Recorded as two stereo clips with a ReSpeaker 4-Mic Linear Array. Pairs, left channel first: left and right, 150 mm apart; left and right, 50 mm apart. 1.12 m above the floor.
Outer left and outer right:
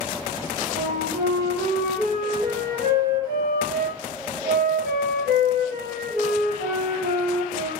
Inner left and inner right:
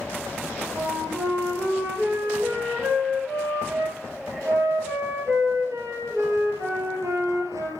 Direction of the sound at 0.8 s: 80° right.